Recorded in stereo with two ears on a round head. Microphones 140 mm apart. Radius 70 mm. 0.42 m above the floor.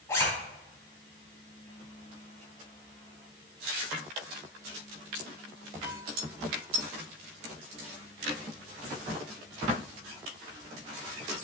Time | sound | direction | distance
0.1 | a zipper | 20° left (ahead or behind) | 3.5 m